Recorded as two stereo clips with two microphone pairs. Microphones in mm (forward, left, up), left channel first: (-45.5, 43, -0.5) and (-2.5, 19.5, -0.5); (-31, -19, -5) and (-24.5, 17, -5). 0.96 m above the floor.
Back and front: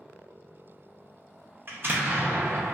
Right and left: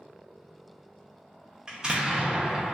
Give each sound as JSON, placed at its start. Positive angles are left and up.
{"t": 1.7, "sound": "an explosion", "azimuth_deg": 15, "distance_m": 0.7}